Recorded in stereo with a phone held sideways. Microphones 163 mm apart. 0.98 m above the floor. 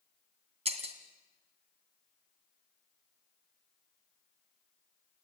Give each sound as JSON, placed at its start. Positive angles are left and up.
{"t": 0.7, "sound": "breaking glass", "side_deg": -45, "distance_m": 2.0}